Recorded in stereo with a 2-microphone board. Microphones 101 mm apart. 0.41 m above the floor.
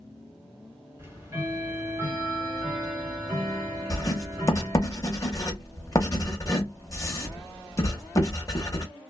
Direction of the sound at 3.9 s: 35° left (ahead or behind).